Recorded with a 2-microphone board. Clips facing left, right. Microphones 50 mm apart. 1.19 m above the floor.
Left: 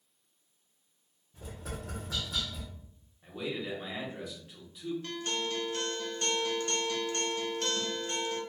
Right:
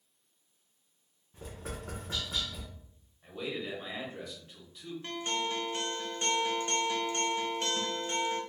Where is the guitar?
20° right (ahead or behind), 0.6 m.